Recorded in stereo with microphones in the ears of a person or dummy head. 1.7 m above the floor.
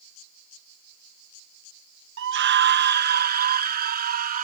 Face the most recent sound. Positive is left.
turn(degrees=-50)  # may be behind; listen again after turning